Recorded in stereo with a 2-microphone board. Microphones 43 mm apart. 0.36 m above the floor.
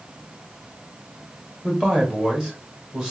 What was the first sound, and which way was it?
A man speaking, 20° right (ahead or behind).